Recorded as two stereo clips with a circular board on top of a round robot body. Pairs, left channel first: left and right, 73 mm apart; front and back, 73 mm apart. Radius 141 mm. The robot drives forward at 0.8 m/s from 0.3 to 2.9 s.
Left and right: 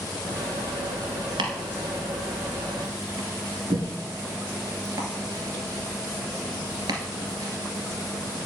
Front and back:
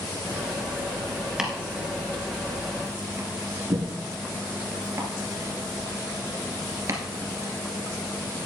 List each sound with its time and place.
1.4 s chopping: 95° right, 1.8 m; by 8.5 s 130° right, 2.5 m